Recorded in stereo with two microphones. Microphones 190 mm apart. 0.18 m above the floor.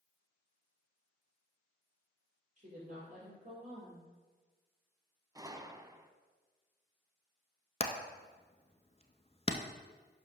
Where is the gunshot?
20° right (ahead or behind), 0.5 m.